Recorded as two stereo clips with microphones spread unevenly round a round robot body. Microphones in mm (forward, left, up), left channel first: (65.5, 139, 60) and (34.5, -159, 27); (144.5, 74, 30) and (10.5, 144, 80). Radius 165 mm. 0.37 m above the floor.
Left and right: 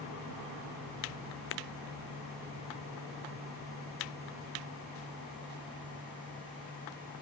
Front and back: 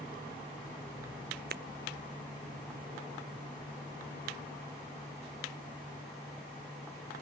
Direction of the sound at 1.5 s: 140° left.